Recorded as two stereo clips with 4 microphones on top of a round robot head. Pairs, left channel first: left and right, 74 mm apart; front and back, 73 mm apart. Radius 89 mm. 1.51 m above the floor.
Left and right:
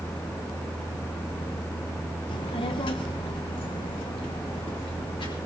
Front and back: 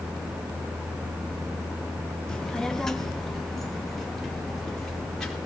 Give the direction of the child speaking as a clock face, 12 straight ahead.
9 o'clock.